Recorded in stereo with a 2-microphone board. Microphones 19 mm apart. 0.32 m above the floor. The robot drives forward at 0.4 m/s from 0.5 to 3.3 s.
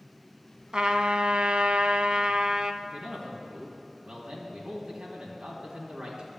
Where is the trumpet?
55° right (ahead or behind), 0.6 m; by 2.7 s 45° right (ahead or behind), 0.7 m.